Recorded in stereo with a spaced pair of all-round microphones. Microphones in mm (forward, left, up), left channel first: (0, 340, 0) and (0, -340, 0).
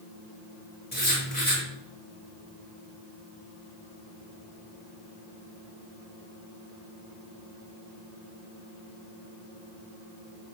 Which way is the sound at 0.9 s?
60° left (ahead or behind).